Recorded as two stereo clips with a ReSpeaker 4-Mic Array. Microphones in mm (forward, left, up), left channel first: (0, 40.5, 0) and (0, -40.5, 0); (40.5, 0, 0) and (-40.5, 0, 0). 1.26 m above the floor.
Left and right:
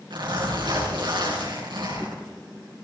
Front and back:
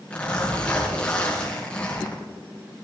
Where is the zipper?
75° right, 5.5 m.